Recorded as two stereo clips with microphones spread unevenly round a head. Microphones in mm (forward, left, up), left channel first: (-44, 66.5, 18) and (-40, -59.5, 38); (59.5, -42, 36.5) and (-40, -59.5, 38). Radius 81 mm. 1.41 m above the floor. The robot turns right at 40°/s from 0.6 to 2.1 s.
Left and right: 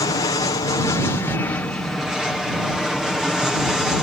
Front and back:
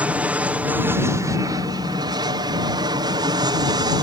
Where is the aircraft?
115° left; by 4.0 s 175° left.